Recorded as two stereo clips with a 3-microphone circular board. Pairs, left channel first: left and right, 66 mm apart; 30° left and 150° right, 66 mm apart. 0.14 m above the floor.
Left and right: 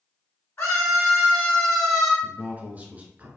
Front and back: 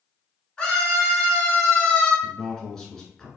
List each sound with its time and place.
0.6 s a scream: 100° left, 1.9 m; by 2.1 s 5° right, 1.7 m
2.2 s a man speaking: 45° right, 1.5 m